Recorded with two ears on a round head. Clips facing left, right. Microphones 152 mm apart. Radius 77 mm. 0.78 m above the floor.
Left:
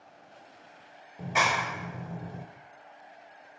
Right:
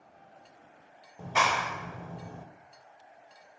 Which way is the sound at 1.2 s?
10° left (ahead or behind).